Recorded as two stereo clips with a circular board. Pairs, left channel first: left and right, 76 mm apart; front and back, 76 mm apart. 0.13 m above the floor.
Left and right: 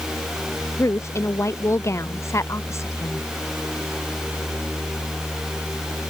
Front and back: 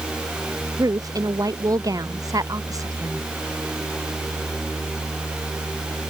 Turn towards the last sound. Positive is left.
turn(degrees=140)